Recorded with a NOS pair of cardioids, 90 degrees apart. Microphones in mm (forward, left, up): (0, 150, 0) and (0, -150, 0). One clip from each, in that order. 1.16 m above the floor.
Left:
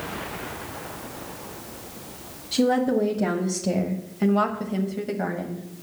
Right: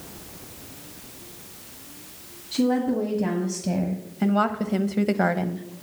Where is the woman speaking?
30° left, 1.6 m; by 5.7 s 65° right, 0.9 m.